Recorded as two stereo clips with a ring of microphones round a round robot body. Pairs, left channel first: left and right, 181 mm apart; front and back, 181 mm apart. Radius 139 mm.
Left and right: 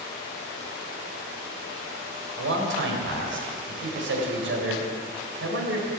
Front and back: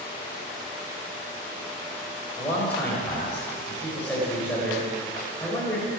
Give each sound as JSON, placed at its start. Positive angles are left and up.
{"t": 2.4, "sound": "a man speaking", "azimuth_deg": -85, "distance_m": 3.5}